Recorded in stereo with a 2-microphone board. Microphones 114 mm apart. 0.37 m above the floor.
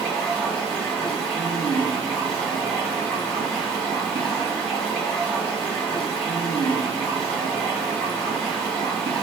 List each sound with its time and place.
0.0 s running water: centre (ahead or behind), 1.3 m